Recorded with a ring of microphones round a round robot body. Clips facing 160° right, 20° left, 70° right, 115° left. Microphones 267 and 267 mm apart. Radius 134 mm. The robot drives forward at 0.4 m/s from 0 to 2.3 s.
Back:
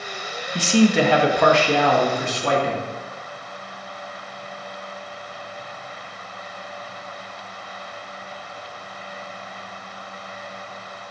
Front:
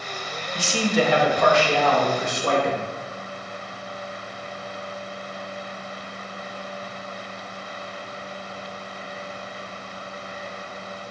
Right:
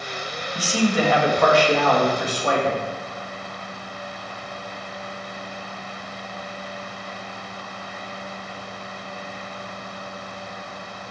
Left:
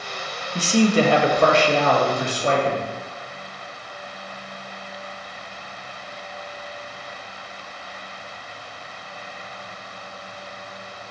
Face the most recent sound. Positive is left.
turn(degrees=175)